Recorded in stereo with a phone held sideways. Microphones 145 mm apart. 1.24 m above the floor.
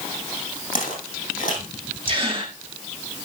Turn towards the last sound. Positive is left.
turn(degrees=-40)  # may be behind; listen again after turning